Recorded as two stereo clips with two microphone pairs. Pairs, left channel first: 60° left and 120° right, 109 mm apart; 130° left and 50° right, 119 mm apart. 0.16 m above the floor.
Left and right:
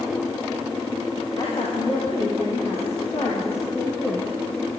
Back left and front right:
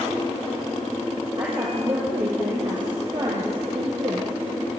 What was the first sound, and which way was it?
A woman speaking, straight ahead.